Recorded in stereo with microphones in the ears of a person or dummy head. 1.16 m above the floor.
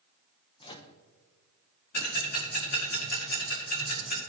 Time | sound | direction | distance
0.6 | a microwave | 20° left (ahead or behind) | 0.7 m
1.9 | ticking | 45° left (ahead or behind) | 2 m